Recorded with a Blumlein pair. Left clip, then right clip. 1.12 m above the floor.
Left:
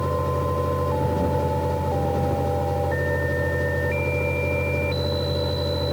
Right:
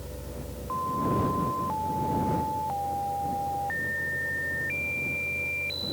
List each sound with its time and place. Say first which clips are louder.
0.0 s a fan: left 17 dB; 35° left